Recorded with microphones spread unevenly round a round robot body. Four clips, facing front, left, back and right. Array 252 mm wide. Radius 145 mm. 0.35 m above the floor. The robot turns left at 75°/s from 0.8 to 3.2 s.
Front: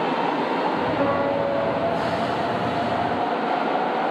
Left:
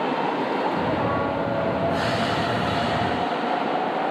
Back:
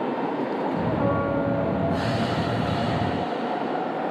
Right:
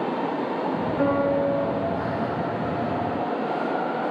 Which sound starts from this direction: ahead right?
A piano, at 1.0 s.